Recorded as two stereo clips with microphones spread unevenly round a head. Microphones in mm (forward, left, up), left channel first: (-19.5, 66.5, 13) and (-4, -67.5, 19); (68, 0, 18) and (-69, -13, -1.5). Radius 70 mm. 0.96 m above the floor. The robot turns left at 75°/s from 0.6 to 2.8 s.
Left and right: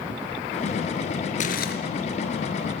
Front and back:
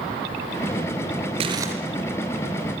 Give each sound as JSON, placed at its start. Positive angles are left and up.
{"t": 1.4, "sound": "crumpling", "azimuth_deg": 130, "distance_m": 3.5}